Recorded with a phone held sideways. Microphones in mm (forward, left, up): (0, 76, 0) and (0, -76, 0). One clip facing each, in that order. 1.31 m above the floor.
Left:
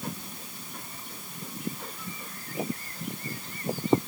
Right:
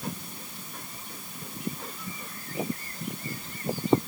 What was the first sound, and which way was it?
Only background noise.